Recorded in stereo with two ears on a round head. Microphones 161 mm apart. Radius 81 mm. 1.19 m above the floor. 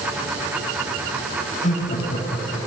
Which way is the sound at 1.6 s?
45° left (ahead or behind).